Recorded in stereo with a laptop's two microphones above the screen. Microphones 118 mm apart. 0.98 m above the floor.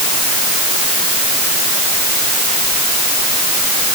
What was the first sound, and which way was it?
Only background noise.